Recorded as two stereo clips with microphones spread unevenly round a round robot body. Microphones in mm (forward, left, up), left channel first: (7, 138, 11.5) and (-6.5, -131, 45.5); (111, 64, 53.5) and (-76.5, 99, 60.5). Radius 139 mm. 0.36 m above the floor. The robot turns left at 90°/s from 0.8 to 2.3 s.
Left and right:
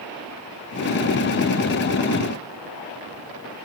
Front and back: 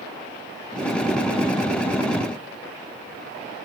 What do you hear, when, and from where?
Only background noise.